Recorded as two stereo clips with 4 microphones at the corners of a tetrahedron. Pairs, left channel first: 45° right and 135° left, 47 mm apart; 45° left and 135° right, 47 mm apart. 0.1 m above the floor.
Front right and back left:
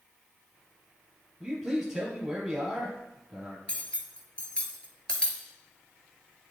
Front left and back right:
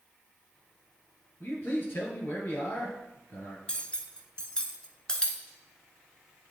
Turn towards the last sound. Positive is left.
turn(degrees=-10)